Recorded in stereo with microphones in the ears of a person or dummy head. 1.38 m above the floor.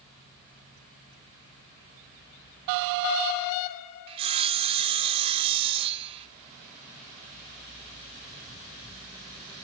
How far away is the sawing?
About 0.9 m.